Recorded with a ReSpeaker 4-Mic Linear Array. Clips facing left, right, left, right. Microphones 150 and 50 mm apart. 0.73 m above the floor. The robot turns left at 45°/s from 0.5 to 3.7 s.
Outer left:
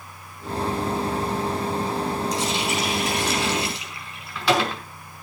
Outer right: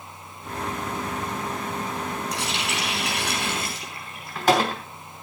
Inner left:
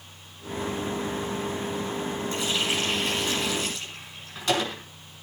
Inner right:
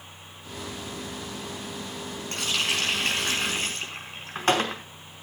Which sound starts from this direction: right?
A running tap, at 2.3 s.